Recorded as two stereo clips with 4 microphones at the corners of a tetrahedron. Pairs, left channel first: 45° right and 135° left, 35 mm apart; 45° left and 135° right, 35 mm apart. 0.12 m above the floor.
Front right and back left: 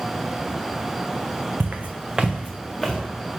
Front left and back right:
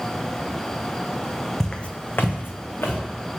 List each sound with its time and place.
1.6 s footsteps: 120° left, 0.6 m; by 3.0 s 40° left, 1.1 m